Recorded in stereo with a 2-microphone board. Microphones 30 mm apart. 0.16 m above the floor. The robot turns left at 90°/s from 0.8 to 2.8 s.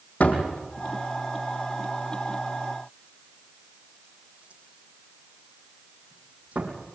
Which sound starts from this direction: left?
A door slam, at 0.2 s.